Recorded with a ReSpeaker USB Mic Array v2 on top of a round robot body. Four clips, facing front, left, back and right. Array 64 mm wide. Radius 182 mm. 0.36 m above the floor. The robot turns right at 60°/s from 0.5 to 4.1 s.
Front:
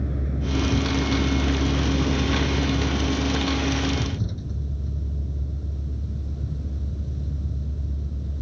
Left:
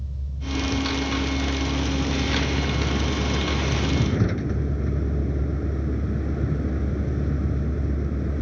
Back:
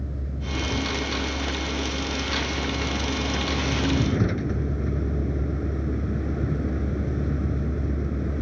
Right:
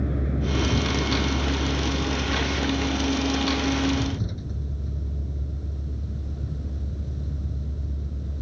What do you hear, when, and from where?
0.0 s a vehicle: 75° right; by 8.4 s 140° left